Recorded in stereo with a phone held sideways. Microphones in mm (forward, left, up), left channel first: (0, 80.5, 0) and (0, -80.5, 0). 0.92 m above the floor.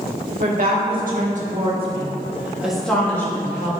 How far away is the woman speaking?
About 2.5 m.